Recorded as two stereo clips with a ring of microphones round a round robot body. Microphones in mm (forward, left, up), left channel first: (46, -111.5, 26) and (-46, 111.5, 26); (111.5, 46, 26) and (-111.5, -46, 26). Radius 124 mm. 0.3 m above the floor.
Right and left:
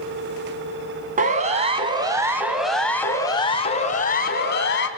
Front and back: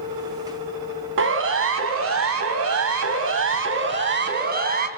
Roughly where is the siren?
Behind.